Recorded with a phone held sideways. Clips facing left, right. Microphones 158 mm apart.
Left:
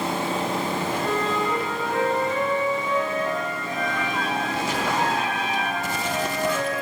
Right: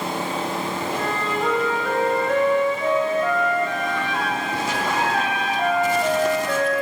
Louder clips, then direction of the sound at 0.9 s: Left 1 dB; 80° right.